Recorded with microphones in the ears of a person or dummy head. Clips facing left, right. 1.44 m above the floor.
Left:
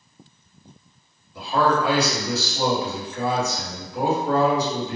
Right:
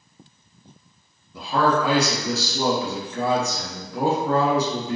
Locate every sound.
1.3 s a man speaking: 70° right (ahead or behind), 1.3 m